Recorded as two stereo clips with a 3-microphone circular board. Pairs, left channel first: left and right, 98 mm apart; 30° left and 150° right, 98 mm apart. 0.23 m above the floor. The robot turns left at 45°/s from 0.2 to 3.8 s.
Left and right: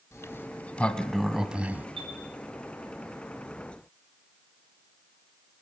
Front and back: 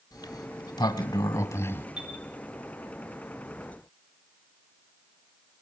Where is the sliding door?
45° left, 1.1 m; by 1.9 s 30° right, 1.1 m.